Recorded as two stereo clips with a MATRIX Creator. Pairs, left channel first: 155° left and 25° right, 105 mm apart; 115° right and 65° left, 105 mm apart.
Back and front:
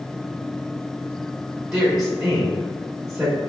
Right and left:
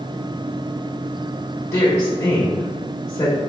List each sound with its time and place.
1.7 s a woman speaking: 105° right, 0.9 m